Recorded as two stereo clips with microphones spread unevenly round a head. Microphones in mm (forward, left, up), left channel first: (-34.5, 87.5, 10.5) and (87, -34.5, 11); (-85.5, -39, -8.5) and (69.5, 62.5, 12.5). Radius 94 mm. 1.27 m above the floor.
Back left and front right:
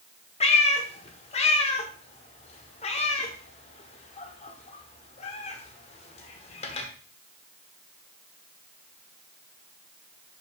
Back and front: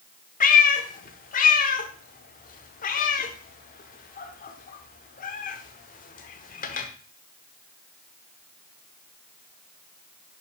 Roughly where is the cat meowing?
Behind.